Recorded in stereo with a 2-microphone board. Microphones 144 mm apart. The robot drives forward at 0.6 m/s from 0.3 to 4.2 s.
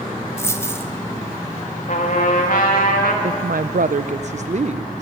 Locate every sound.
0.4 s a dropped coin: 20° left (ahead or behind), 1.6 m; by 0.9 s 15° left (ahead or behind), 1.8 m
1.9 s a trumpet: 60° left (ahead or behind), 3 m; by 3.1 s 70° left (ahead or behind), 2.5 m
3.2 s a woman speaking: 60° right (ahead or behind), 0.5 m; by 5.0 s 50° right (ahead or behind), 0.6 m